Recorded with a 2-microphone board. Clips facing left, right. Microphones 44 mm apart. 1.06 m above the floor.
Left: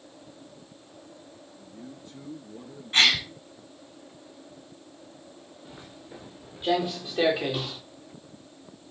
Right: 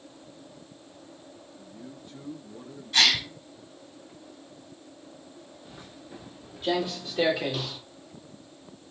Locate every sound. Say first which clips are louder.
1.6 s a man speaking: left 1 dB; 10° right (ahead or behind), 9.5 m
2.9 s a gasp: left 2 dB; 40° left (ahead or behind), 4.5 m
5.7 s footsteps: left 2 dB; 15° left (ahead or behind), 7 m; by 7.8 s 20° left (ahead or behind), 5.5 m